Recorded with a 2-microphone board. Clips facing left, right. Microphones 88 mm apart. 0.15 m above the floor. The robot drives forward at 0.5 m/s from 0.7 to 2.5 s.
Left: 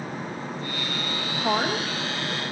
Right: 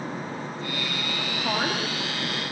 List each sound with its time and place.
1.4 s a woman speaking: 75° left (ahead or behind), 9.5 m